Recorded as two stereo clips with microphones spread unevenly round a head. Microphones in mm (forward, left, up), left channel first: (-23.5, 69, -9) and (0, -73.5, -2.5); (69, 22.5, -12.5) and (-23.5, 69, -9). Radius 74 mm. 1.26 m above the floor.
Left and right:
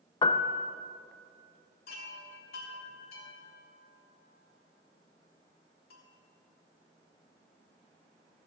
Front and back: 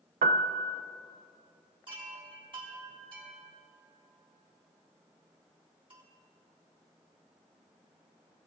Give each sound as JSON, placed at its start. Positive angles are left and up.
{"t": 0.2, "sound": "a piano", "azimuth_deg": 165, "distance_m": 0.6}
{"t": 1.9, "sound": "a chime", "azimuth_deg": 115, "distance_m": 3.5}